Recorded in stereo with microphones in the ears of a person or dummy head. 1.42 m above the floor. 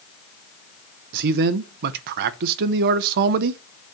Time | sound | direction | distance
1.1 | a man speaking | 60° right (ahead or behind) | 0.7 m